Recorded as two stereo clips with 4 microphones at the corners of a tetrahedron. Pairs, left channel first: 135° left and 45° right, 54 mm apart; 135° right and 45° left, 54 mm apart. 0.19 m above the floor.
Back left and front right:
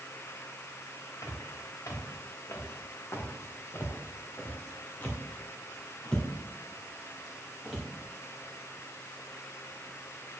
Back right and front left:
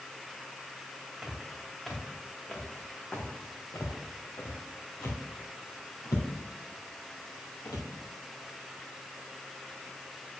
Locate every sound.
1.2 s footsteps: 135° left, 2 m; by 7.8 s 135° right, 3 m